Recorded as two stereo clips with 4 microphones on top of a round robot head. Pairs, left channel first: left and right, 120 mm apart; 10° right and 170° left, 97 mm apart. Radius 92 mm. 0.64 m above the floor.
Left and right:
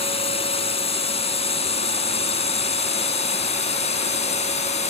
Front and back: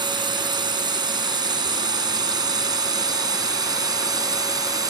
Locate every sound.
0.0 s a drone: 125° left; by 4.9 s 120° left